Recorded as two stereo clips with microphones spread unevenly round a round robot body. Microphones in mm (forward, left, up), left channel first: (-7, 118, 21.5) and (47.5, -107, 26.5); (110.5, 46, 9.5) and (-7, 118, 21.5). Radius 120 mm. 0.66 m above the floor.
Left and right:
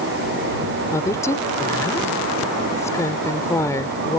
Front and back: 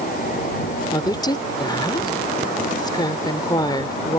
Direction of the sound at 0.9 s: 25° left.